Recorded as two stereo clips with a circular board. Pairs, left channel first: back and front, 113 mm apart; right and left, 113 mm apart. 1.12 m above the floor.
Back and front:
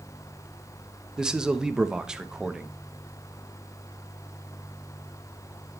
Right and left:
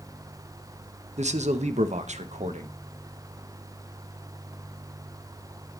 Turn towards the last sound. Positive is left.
turn(degrees=85)